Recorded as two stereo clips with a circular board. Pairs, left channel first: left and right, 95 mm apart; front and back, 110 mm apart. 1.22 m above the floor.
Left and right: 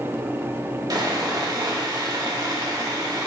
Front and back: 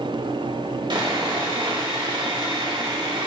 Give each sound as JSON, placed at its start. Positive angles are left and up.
{"t": 0.9, "sound": "sawing", "azimuth_deg": -135, "distance_m": 2.0}